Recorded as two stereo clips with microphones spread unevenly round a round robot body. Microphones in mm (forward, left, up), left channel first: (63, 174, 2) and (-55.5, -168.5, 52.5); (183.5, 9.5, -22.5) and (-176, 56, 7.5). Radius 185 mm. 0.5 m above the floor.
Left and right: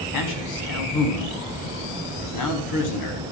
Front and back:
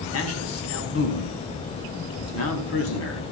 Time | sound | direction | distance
0.1 | a man speaking | 45° left | 5 m